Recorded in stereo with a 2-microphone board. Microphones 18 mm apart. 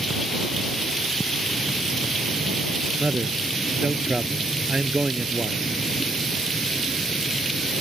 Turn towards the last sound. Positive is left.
turn(degrees=-65)  # may be behind; listen again after turning